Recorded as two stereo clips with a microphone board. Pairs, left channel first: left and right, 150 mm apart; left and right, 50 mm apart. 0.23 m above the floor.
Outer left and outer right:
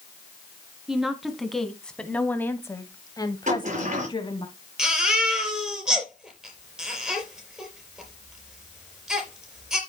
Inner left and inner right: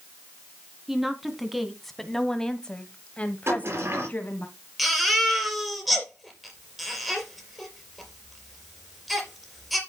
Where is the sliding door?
55° right (ahead or behind), 5.5 m.